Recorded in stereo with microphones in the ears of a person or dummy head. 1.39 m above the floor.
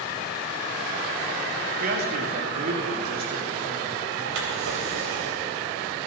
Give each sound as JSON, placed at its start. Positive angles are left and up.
{"t": 1.8, "sound": "a man speaking", "side_deg": -50, "distance_m": 1.9}
{"t": 4.3, "sound": "a drawer", "side_deg": -75, "distance_m": 3.0}